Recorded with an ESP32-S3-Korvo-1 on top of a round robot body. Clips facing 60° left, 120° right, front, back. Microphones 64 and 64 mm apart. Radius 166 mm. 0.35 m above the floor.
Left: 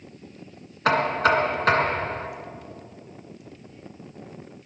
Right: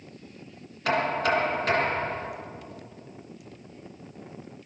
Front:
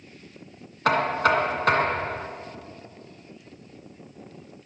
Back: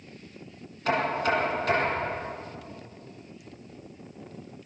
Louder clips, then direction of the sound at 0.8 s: Left 4 dB, front 4 dB; 15° left.